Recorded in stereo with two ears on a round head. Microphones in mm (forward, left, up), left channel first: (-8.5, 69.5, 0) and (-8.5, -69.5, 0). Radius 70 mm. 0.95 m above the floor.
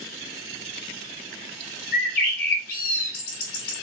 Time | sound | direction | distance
1.9 | a bird | 65° left (ahead or behind) | 1.8 m